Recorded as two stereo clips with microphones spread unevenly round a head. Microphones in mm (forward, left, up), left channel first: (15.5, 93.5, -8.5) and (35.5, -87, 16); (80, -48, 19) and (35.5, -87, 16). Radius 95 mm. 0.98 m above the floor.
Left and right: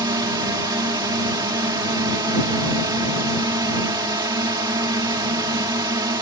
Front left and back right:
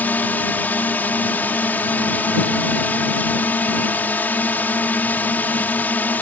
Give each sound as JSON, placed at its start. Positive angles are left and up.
{"t": 0.0, "sound": "a drone", "azimuth_deg": -15}